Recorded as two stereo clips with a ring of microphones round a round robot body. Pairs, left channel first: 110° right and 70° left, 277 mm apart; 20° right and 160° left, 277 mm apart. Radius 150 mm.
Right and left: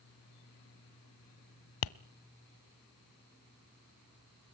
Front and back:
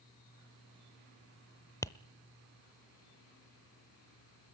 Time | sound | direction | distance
1.8 | tapping | 100° right | 0.6 m